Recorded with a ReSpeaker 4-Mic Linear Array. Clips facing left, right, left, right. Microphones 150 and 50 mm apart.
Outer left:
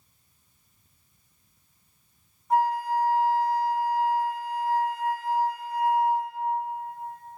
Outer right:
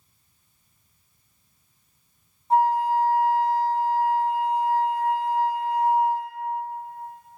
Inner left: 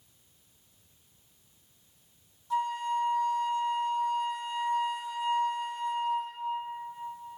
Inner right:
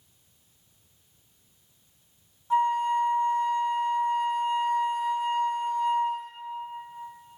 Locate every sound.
2.5 s a flute: 30° right (ahead or behind), 0.9 m